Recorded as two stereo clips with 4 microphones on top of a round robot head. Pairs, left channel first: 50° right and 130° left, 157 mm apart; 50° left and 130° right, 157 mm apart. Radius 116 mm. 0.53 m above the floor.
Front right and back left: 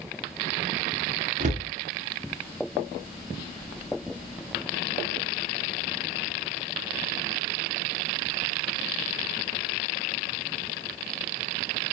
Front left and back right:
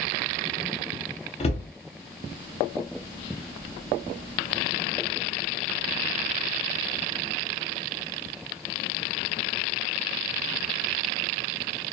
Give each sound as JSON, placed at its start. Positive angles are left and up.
{"t": 1.4, "sound": "a cupboard door", "azimuth_deg": 95, "distance_m": 0.7}